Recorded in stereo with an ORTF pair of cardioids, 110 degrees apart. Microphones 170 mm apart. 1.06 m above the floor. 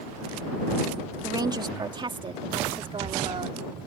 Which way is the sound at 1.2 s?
25° right.